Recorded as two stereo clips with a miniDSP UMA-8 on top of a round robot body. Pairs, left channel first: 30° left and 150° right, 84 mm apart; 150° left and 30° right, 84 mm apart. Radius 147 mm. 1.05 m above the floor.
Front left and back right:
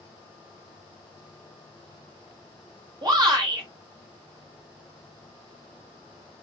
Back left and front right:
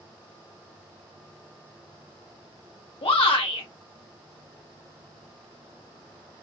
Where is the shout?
165° left, 1.8 m.